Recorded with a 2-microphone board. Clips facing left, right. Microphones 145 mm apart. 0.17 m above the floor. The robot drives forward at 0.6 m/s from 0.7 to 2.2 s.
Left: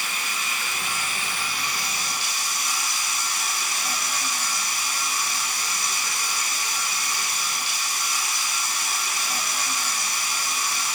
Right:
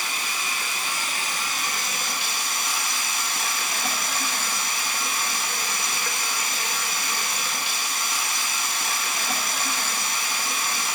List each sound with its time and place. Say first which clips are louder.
0.0 s running water: right 1 dB; 35° right (ahead or behind), 1.8 m; by 10.9 s 60° right (ahead or behind), 1.1 m